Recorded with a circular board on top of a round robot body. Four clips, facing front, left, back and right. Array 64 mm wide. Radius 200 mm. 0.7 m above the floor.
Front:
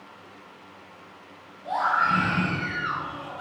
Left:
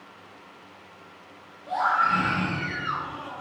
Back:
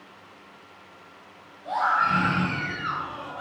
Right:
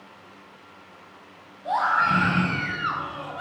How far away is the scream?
About 5.5 m.